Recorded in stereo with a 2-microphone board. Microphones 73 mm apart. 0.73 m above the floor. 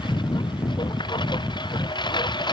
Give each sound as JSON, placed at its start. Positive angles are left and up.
{"t": 0.0, "sound": "a lawn mower", "side_deg": 85}